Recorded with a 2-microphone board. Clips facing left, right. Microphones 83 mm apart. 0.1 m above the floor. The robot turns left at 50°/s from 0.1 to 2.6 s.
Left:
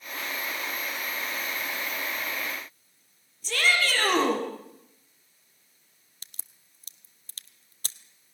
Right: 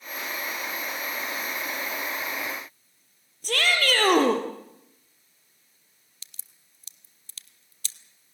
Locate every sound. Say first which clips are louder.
3.4 s a shout: right 1 dB; 60° right (ahead or behind), 3 m
6.2 s a crack: left 3 dB; 45° left (ahead or behind), 0.8 m